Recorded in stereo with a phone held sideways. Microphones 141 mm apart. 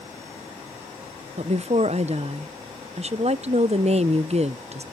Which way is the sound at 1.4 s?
50° right (ahead or behind).